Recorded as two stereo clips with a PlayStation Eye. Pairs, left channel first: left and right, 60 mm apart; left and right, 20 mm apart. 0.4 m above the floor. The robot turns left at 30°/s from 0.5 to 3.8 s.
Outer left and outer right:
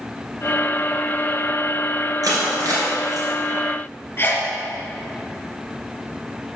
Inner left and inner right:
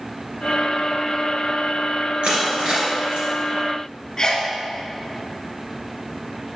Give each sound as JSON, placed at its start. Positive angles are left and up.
{"t": 2.2, "sound": "crushing", "side_deg": -75, "distance_m": 2.0}
{"t": 4.2, "sound": "a sneeze", "side_deg": 40, "distance_m": 1.1}